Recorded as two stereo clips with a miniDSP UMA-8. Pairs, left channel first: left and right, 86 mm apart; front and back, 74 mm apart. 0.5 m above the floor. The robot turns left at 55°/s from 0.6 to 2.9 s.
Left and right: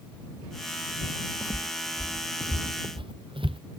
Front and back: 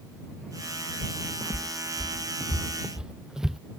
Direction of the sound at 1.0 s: 20° right.